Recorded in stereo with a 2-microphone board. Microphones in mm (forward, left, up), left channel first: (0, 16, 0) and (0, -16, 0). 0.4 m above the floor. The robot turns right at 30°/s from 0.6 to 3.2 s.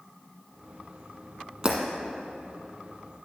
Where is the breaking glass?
20° right (ahead or behind), 1.3 m; by 1.8 s 25° right (ahead or behind), 1.3 m.